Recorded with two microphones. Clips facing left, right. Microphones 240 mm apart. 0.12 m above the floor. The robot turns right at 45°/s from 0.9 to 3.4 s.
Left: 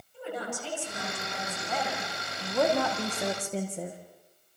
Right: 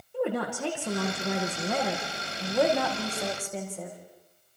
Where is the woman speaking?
85° right, 7 m; by 4.0 s 30° left, 7 m.